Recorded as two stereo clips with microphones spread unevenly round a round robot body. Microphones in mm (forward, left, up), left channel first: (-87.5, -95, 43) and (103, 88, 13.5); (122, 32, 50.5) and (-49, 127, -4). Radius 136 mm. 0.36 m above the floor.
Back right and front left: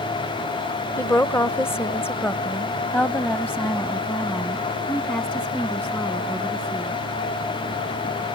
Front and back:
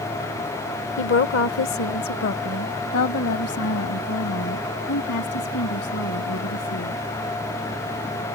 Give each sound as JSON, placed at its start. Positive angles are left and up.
{"t": 1.0, "sound": "a woman speaking", "azimuth_deg": -50}